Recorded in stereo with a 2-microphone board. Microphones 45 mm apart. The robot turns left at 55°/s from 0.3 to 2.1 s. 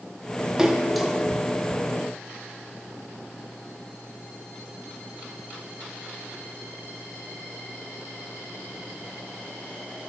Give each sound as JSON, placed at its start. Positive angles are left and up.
{"t": 0.6, "sound": "a splash", "side_deg": -15, "distance_m": 1.0}